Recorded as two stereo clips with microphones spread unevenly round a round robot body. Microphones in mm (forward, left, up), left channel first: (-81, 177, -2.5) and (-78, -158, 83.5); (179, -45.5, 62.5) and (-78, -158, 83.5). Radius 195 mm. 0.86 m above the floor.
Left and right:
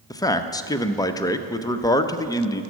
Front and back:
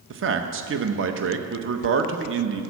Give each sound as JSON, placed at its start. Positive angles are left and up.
{"t": 0.1, "sound": "a man speaking", "azimuth_deg": 160, "distance_m": 0.7}